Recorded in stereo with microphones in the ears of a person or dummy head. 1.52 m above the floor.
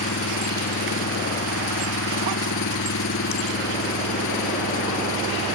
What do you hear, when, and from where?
0.0 s an engine running: 65° left (ahead or behind)